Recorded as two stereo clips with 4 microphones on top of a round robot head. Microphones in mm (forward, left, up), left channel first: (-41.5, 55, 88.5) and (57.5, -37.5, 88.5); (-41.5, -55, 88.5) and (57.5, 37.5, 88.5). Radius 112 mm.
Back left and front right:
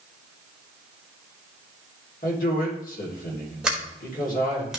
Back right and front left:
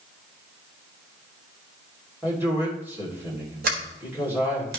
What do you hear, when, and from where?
2.2 s a man speaking: 120° left, 3 m
3.6 s a sliding door: 40° left, 1.4 m